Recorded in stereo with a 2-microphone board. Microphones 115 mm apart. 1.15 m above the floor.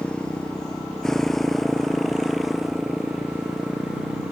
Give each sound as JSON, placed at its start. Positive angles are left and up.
{"t": 0.0, "sound": "a motorcycle", "side_deg": 10}